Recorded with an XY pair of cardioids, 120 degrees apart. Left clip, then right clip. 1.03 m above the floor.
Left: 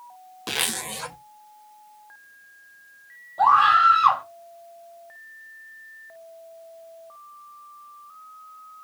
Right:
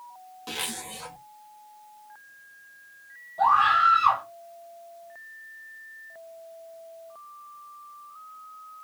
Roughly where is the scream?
Ahead left.